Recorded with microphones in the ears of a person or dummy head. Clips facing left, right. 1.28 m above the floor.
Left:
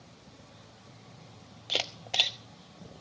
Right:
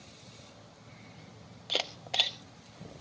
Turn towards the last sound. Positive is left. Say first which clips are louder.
# even
turn(degrees=0)  # may be behind; listen again after turning